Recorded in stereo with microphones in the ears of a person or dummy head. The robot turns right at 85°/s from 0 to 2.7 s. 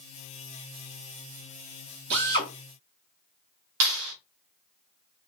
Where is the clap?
90° right, 2 m.